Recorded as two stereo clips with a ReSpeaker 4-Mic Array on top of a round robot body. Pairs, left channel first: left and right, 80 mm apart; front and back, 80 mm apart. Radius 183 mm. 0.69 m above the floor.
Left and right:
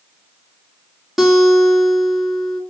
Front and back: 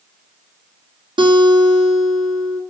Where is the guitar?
175° right, 2.5 m.